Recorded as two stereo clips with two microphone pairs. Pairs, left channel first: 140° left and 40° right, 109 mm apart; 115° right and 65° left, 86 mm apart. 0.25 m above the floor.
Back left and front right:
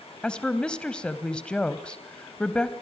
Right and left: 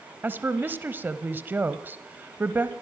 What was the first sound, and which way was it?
A woman speaking, 75° left.